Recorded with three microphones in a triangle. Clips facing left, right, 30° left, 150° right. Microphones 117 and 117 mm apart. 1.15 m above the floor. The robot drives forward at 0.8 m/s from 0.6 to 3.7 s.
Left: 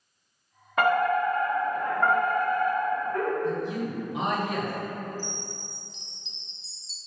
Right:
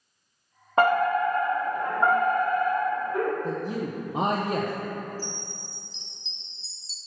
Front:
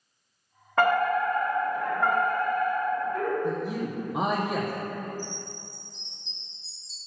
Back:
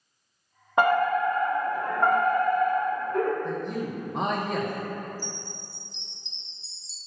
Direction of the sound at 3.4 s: 40° right.